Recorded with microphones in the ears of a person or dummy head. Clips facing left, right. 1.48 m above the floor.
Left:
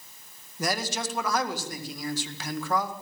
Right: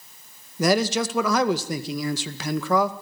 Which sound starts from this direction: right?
A man speaking, at 0.6 s.